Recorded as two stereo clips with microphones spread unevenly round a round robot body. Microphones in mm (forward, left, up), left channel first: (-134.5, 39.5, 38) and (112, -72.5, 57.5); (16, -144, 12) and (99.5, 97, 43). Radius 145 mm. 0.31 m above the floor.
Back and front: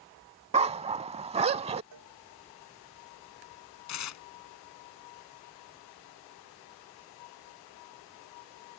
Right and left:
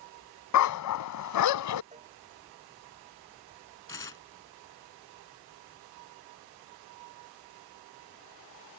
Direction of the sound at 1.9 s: 10° left.